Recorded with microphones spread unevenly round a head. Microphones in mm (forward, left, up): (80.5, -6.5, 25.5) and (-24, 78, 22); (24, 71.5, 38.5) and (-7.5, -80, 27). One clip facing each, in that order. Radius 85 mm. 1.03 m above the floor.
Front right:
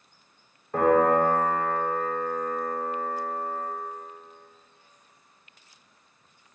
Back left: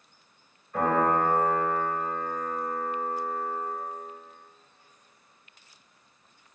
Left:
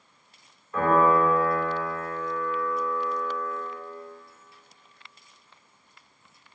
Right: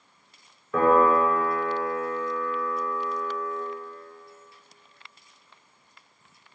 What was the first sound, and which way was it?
A piano, 90° right.